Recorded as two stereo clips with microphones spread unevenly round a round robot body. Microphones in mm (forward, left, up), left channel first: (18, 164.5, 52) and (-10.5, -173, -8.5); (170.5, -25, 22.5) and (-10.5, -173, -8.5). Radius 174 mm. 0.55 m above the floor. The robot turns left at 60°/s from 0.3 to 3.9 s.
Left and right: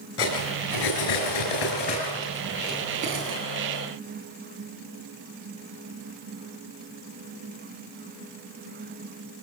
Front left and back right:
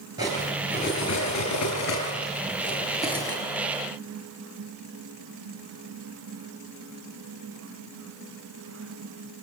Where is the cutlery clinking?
140° left, 6.5 m; by 3.4 s 50° right, 6.5 m.